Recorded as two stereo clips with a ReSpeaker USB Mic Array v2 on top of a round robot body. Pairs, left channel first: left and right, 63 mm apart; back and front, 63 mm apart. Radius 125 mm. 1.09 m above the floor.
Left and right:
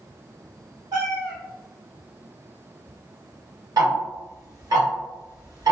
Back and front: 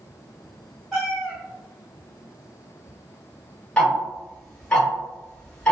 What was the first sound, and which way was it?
A cat meowing, 90° right.